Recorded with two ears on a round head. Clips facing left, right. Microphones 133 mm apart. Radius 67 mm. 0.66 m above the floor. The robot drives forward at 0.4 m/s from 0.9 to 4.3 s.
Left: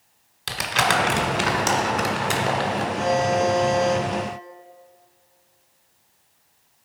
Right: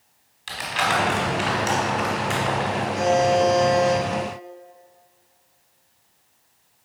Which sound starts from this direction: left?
Crumpling, at 0.5 s.